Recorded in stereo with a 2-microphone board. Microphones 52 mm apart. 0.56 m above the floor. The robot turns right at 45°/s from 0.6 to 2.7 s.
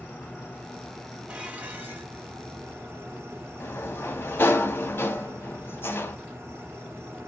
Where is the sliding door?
50° left (ahead or behind), 0.5 m.